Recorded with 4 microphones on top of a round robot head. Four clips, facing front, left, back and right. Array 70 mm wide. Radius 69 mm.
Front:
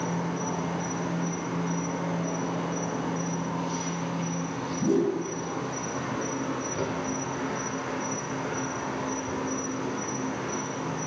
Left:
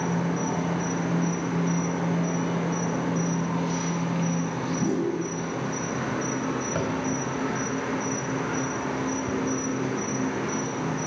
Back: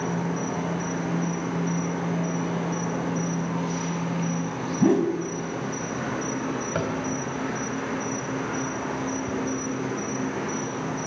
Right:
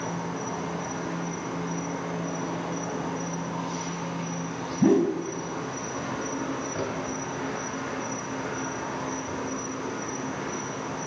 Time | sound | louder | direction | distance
0.0 | an insect | left 5 dB, back 2 dB | 125° left | 5.5 m
4.8 | a whoosh | right 7 dB, back 4 dB | 145° right | 2.5 m
6.8 | tapping | left 3 dB, back 4 dB | 155° left | 5 m